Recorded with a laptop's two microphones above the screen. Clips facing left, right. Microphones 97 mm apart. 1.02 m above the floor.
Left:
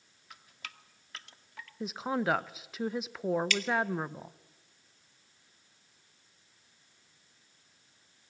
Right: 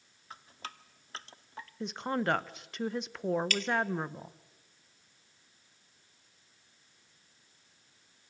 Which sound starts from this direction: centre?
A woman speaking, at 1.8 s.